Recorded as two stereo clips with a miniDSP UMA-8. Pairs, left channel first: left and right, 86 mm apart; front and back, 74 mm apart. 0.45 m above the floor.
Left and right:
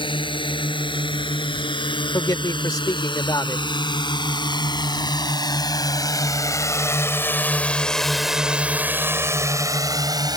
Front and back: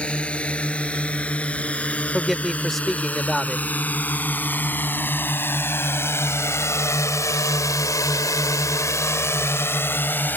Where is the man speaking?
90° left.